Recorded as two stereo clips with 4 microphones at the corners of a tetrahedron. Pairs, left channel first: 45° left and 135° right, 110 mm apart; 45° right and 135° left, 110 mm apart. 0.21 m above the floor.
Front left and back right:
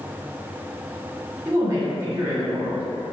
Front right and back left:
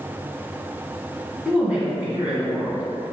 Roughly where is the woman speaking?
Behind.